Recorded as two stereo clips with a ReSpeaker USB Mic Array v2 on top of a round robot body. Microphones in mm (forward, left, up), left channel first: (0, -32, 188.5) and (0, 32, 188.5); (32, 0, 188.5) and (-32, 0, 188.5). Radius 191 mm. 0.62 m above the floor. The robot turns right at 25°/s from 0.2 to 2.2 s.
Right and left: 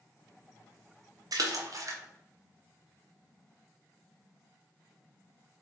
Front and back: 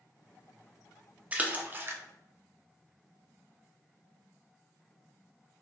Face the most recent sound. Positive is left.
turn(degrees=130)